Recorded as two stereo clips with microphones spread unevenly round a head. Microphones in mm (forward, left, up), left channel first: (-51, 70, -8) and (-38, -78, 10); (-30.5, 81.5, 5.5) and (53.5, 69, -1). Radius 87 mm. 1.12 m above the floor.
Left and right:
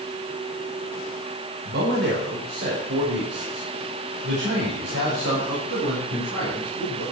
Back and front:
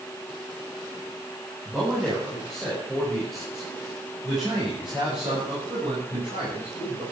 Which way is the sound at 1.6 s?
90° right.